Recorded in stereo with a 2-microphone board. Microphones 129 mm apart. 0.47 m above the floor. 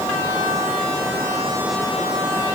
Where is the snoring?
No snoring in this recording.